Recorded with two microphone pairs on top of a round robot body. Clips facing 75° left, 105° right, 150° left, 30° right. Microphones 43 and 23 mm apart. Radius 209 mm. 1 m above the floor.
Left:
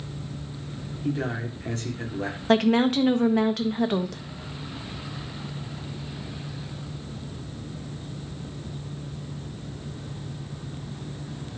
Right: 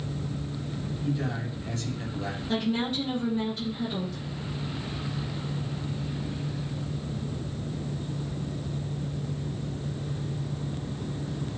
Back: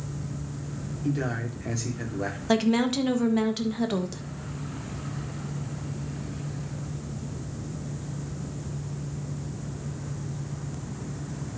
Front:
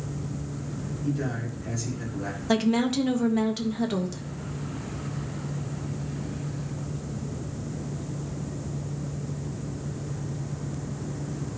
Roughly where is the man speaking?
Left.